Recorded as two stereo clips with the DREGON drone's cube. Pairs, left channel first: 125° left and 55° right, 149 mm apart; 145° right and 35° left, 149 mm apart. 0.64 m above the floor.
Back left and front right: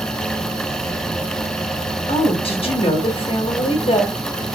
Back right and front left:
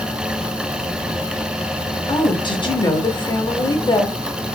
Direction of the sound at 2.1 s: 165° left.